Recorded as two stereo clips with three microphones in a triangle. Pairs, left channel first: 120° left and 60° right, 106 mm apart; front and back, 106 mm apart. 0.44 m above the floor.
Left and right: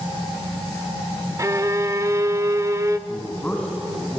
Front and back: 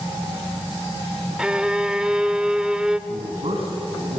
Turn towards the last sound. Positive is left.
turn(degrees=-165)